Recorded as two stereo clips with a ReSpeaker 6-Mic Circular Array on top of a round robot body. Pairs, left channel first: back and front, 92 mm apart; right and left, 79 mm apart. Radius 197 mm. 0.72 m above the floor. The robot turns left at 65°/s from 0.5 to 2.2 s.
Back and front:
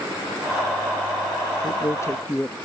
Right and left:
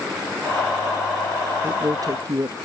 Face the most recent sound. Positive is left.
turn(degrees=115)